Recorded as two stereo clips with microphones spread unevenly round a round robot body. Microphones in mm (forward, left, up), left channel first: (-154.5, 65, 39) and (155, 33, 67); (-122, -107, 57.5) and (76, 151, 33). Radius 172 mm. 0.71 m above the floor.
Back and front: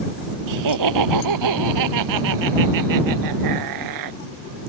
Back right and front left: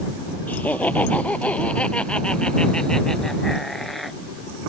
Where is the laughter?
40° right.